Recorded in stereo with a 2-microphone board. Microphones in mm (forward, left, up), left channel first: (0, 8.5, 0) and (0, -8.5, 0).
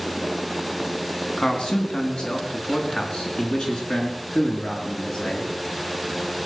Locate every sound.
1.4 s a man speaking: 60° left (ahead or behind), 2.5 m; by 5.5 s 75° left (ahead or behind), 4 m